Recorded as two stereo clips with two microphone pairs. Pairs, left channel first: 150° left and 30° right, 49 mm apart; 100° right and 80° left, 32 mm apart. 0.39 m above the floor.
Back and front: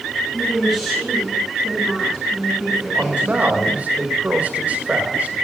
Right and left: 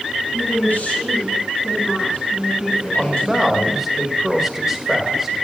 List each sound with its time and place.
0.3 s a woman speaking: 130° right, 3.5 m; by 3.8 s 165° right, 3.5 m
3.0 s a man speaking: 10° left, 1.8 m